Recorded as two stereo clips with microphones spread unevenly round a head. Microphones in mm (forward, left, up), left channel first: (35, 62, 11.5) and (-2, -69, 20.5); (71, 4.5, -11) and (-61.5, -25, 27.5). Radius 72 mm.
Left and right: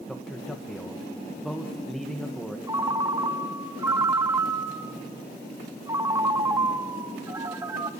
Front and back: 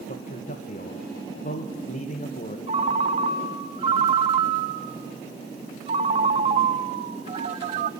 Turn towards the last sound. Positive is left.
turn(degrees=-170)